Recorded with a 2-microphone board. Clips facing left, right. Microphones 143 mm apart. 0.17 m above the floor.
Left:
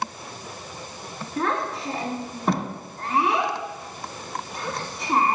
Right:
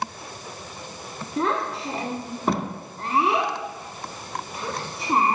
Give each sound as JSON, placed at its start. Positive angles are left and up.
{"t": 1.4, "sound": "a child speaking", "side_deg": -5, "distance_m": 1.0}